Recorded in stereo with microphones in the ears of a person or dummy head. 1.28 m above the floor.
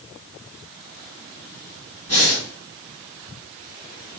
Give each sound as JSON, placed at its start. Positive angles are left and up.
{"t": 2.1, "sound": "breathing", "side_deg": 35, "distance_m": 2.5}